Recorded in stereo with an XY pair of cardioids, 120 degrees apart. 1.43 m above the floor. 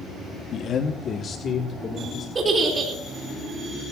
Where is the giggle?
30° right, 4.5 m.